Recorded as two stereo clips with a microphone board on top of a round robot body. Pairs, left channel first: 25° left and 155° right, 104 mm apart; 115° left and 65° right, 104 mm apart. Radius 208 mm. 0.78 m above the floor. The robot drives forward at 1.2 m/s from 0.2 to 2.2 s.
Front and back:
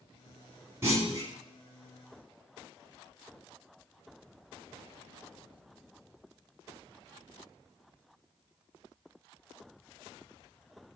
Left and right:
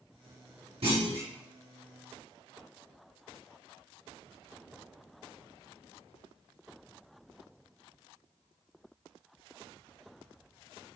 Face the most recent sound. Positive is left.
turn(degrees=-115)